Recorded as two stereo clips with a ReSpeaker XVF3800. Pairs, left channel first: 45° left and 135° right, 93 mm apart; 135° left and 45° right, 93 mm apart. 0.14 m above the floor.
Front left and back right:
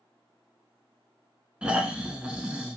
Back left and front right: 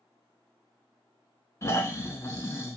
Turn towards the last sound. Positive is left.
turn(degrees=155)